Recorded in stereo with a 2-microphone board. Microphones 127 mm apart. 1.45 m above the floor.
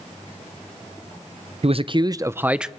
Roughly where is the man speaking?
Right.